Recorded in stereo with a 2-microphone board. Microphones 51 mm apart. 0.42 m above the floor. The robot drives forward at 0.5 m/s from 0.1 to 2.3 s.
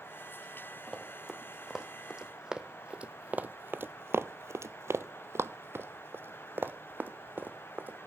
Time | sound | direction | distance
0.9 | running footsteps | centre (ahead or behind) | 2.5 m